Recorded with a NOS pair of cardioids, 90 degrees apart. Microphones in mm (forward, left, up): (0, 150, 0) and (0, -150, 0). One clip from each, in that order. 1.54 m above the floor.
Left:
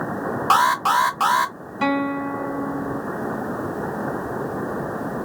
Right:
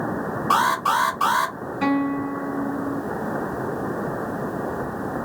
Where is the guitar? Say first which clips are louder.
Left 1 dB; 60° left, 1.8 m.